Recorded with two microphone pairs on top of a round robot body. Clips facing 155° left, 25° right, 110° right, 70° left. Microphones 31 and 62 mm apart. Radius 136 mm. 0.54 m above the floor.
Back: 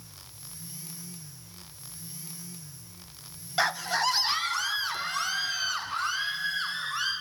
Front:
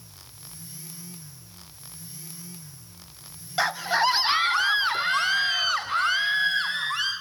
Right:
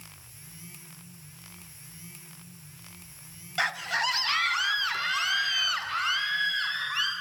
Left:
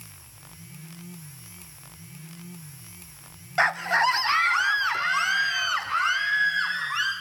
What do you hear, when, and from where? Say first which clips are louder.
3.6 s a scream: front 3 dB, left 7 dB; 30° left, 0.9 m; by 7.1 s 5° left, 5 m